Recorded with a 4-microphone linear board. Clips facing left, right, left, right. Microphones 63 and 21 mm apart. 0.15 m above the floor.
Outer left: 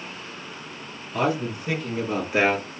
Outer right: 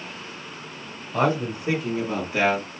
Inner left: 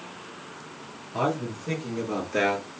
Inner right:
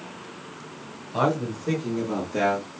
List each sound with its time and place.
1.1 s a man speaking: 40° right (ahead or behind), 2 m; by 2.7 s 35° left (ahead or behind), 1.9 m